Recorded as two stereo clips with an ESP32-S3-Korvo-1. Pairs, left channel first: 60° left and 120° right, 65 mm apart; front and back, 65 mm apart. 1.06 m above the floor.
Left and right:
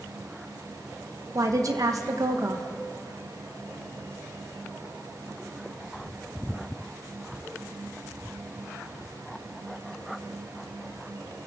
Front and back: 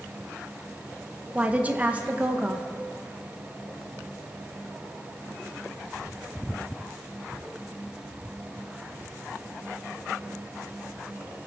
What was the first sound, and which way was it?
A woman speaking, 115° right.